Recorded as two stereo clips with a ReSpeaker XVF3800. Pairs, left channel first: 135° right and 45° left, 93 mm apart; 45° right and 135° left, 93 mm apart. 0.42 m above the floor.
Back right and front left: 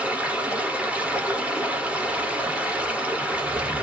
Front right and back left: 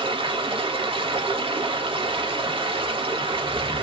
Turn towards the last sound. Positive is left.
turn(degrees=120)